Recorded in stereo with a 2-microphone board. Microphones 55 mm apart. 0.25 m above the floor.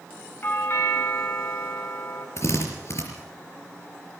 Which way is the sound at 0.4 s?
40° left (ahead or behind).